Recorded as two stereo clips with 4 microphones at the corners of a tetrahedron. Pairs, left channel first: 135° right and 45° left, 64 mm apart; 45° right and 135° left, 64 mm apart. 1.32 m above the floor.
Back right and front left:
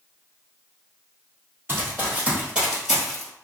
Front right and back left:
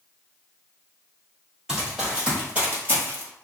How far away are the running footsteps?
About 1.6 m.